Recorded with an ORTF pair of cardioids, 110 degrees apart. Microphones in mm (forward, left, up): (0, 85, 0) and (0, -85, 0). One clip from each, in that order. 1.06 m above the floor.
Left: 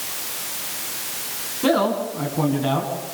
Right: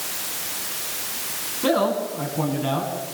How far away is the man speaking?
About 9 m.